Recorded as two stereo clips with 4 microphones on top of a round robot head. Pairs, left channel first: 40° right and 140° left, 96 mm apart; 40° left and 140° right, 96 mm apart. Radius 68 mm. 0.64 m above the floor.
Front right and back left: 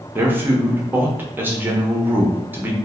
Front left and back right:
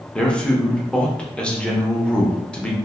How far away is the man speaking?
About 0.7 m.